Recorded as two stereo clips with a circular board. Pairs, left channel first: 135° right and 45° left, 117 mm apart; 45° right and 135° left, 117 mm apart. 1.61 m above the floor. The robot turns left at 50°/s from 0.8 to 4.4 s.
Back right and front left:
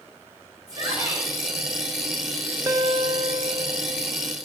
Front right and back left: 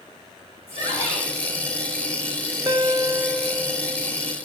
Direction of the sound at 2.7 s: 95° left.